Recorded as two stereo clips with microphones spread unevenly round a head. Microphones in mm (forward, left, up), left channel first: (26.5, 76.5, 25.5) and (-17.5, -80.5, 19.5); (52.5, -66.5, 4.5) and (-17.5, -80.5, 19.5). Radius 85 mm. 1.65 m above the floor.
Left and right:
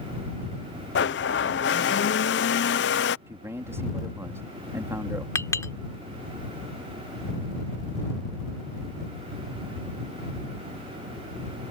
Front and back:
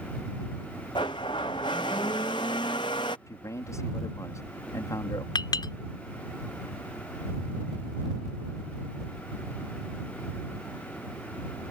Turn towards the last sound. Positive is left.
turn(degrees=0)